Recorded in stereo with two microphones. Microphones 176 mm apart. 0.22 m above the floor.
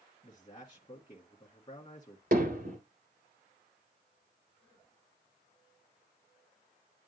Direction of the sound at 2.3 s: 55° right (ahead or behind).